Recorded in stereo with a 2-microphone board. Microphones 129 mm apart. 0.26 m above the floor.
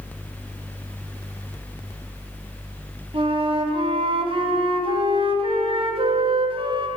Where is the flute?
40° right (ahead or behind), 1.4 m.